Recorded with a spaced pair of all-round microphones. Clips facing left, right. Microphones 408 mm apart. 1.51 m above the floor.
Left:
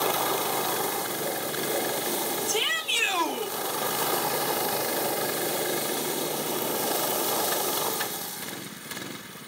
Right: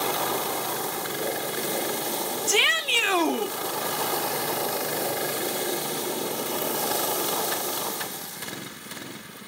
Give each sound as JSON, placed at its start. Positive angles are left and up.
{"t": 2.5, "sound": "a shout", "side_deg": -85, "distance_m": 0.9}